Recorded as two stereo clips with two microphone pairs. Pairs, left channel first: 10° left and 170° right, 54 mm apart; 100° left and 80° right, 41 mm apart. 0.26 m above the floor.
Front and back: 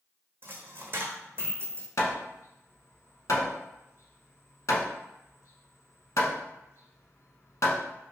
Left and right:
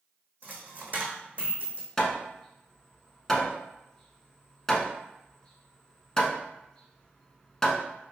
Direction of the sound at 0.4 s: 120° right.